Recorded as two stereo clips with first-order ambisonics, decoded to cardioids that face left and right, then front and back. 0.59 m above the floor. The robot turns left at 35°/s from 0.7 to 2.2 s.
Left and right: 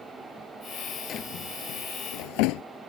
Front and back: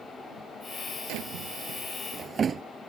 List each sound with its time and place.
1.1 s a drawer: 150° left; by 2.6 s 110° left